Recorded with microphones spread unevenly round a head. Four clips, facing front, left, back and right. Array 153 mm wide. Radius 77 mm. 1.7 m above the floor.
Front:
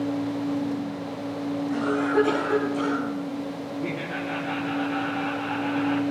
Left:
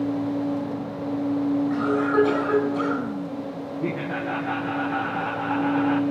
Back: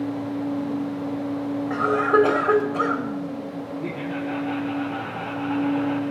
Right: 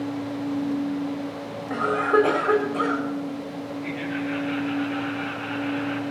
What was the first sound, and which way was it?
A cough, 145° right.